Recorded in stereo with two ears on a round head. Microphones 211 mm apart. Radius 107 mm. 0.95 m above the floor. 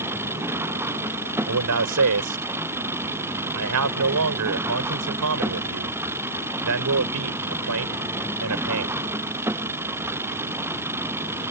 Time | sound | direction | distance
0.0 | an engine running | 10° right (ahead or behind) | ?
1.5 | a man speaking | 80° right | ?